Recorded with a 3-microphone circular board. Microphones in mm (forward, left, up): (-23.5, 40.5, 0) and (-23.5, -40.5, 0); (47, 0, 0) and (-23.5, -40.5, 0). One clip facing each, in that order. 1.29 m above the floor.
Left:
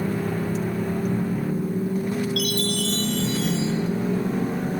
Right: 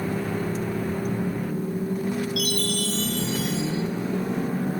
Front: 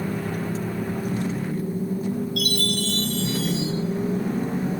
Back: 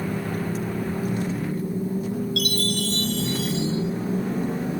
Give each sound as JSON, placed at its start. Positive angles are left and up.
{"t": 2.4, "sound": "a chime", "azimuth_deg": -175, "distance_m": 2.5}